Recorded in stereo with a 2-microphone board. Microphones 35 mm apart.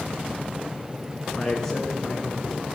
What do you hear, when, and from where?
1.3 s a man speaking: 15° left (ahead or behind), 6 m; by 2.6 s 5° left (ahead or behind), 6 m